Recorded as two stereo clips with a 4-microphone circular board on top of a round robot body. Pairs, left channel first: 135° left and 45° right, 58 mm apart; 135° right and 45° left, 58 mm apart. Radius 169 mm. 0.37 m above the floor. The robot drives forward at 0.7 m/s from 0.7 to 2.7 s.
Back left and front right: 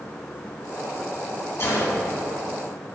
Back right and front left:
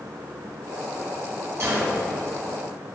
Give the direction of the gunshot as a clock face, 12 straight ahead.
9 o'clock.